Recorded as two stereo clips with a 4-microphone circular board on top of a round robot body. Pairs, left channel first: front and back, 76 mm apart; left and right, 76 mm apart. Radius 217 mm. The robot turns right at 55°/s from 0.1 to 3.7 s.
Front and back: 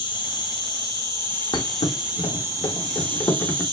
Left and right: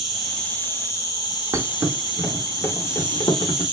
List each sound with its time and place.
0.0 s an insect: 5° right, 1.2 m; by 3.7 s 165° right, 1.2 m
1.5 s a thud: 35° right, 0.5 m; by 3.6 s 80° left, 0.5 m